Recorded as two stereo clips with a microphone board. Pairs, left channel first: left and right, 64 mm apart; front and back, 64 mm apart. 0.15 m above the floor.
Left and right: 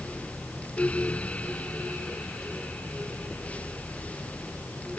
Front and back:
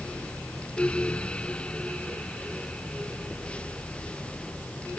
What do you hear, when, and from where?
Only background noise.